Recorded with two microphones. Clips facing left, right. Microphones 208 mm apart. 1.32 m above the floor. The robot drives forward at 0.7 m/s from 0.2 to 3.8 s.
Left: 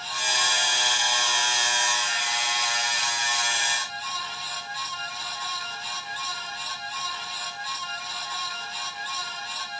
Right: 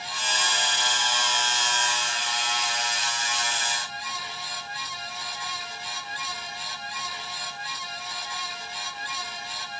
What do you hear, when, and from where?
Only background noise.